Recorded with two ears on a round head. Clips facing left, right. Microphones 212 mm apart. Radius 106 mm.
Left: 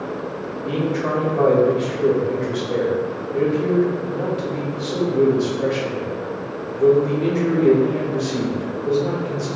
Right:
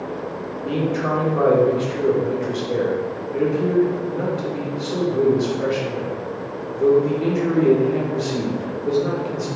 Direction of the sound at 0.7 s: 5° right (ahead or behind).